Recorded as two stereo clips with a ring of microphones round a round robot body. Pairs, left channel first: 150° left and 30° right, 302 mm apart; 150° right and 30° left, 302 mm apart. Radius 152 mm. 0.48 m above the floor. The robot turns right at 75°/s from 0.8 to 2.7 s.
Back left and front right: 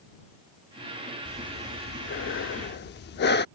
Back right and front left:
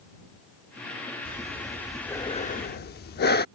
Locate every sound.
1.2 s breathing: 70° left; by 3.5 s straight behind